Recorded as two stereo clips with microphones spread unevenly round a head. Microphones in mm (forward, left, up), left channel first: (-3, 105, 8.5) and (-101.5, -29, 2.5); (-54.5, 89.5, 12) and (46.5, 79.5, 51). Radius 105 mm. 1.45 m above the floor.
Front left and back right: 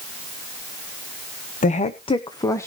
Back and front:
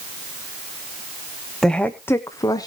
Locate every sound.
1.6 s a woman speaking: 95° left, 0.9 m; by 2.7 s 130° left, 1.0 m